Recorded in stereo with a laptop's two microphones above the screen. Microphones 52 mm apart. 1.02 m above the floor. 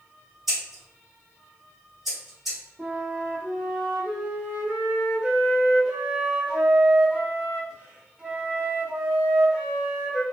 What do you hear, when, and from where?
0.5 s scissors: 5° right (ahead or behind), 1.3 m
2.8 s a flute: 20° right (ahead or behind), 0.5 m